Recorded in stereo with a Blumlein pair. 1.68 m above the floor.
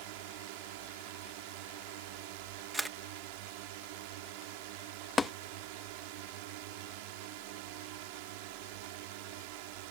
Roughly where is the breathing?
I don't hear breathing.